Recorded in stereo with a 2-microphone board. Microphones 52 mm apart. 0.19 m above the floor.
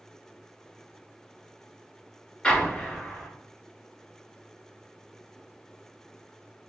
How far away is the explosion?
About 0.9 m.